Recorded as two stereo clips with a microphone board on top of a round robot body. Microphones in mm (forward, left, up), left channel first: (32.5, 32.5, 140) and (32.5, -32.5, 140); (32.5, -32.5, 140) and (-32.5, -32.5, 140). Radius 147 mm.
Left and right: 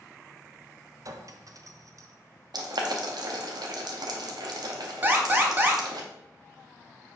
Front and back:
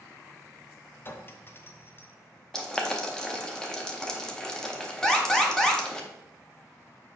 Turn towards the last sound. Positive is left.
turn(degrees=-70)